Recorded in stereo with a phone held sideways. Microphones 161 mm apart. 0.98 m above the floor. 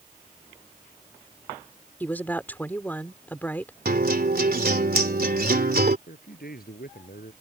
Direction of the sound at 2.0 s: 10° left (ahead or behind).